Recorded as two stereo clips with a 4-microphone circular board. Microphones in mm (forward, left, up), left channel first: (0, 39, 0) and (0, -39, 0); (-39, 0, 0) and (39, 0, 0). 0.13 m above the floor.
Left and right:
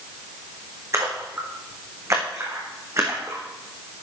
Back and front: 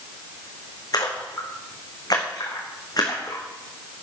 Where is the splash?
140° right, 3.5 m.